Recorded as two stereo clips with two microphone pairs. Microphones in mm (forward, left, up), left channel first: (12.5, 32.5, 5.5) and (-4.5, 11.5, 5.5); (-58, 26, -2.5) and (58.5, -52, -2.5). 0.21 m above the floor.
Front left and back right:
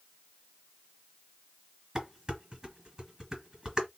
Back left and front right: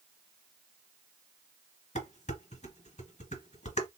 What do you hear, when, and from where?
1.9 s dishes clattering: 175° left, 1.9 m